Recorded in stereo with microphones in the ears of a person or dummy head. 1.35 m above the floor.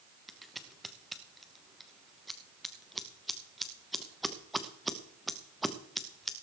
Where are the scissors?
Centre (ahead or behind), 0.9 m.